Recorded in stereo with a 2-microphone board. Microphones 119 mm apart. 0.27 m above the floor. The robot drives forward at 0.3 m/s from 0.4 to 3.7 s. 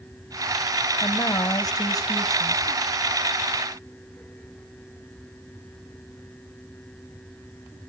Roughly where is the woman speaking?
Left.